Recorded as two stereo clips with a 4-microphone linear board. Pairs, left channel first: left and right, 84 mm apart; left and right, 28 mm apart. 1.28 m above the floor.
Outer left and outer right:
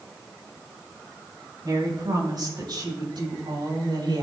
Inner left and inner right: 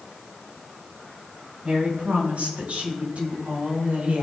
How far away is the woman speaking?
About 5.5 m.